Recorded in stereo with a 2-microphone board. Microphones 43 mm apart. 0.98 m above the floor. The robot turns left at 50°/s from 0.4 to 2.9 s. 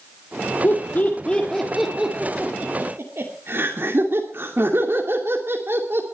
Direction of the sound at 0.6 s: 55° left (ahead or behind).